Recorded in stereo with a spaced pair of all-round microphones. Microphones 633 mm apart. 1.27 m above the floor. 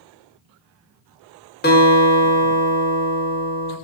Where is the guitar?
15° left (ahead or behind), 0.9 m.